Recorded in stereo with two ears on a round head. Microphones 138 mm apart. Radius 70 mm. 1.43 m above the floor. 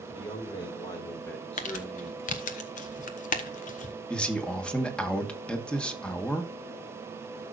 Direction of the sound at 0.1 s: 35° left (ahead or behind).